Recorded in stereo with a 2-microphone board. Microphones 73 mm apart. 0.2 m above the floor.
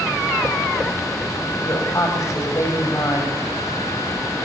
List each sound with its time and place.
1.6 s a woman speaking: 45° left (ahead or behind), 7.5 m